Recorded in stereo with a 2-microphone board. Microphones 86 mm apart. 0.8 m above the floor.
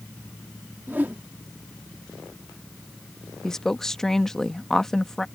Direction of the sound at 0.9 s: 20° right (ahead or behind).